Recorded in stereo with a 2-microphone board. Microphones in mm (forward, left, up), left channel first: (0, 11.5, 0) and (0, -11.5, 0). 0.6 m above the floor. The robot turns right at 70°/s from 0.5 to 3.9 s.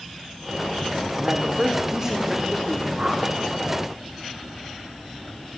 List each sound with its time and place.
1.2 s a man speaking: 90° right, 1.6 m; by 2.9 s 30° left, 1.6 m
3.0 s a whoosh: 45° right (ahead or behind), 2.5 m; by 3.2 s 25° right (ahead or behind), 2.5 m